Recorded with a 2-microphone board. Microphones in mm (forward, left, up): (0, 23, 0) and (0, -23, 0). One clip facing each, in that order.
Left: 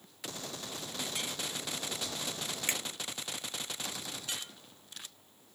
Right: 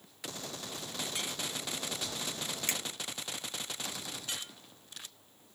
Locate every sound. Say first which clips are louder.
2.7 s a finger snap: left 2 dB; 15° left (ahead or behind), 1.2 m